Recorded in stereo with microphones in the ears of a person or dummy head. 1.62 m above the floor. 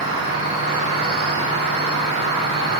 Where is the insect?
60° right (ahead or behind), 3.5 m.